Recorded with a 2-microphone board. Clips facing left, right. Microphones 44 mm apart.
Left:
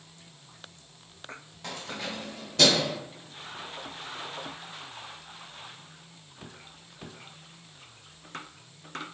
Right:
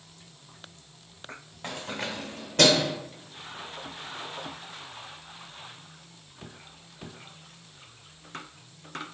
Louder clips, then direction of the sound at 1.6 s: Right 2 dB; 25° right (ahead or behind).